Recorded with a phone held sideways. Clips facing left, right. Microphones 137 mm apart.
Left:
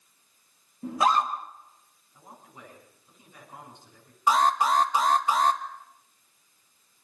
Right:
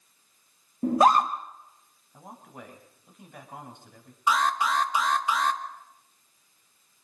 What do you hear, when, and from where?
0.8 s a scream: 50° right (ahead or behind), 0.9 m
2.1 s a man speaking: 60° right (ahead or behind), 6 m
4.3 s an alarm: 40° left (ahead or behind), 1.2 m